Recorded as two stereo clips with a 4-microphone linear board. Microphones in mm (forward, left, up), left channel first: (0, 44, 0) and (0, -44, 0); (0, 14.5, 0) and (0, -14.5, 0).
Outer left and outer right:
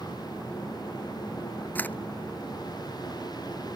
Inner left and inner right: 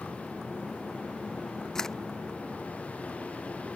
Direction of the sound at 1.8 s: 20° left (ahead or behind).